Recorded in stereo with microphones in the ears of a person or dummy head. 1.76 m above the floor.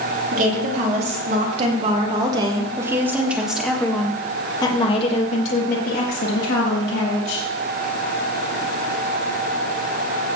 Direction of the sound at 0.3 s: 40° right (ahead or behind).